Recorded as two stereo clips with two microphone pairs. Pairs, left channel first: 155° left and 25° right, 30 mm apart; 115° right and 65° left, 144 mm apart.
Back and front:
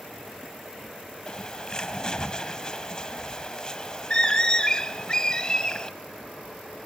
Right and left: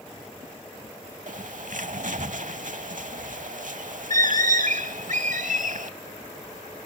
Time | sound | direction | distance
1.3 | a bird | 90° left | 0.7 m